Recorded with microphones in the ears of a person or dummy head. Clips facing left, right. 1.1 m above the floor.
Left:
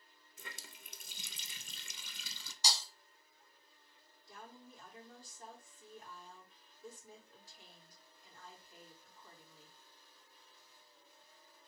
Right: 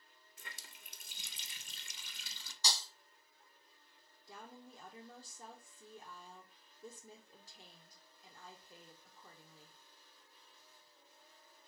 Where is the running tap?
85° left, 0.6 m.